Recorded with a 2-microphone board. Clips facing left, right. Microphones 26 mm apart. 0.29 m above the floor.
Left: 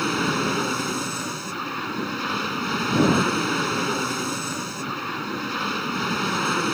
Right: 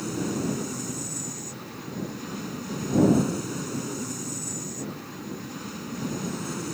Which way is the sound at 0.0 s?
50° left (ahead or behind).